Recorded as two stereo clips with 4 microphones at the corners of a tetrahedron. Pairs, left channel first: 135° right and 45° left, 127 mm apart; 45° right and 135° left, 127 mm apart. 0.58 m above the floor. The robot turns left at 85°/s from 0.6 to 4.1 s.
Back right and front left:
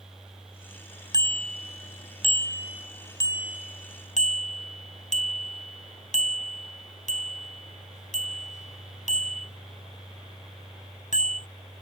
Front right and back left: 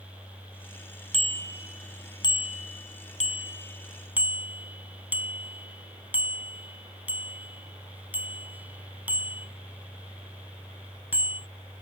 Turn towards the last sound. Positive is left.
turn(degrees=-150)